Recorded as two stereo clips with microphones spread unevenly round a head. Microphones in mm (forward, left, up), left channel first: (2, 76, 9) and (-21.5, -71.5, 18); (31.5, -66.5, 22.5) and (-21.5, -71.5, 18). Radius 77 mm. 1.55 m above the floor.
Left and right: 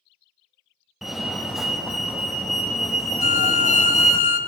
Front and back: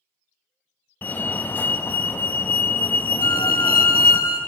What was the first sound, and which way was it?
A fire alarm, 5° right.